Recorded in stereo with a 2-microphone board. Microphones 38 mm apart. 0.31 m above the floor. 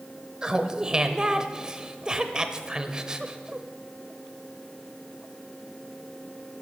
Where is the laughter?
20° right (ahead or behind), 0.9 m.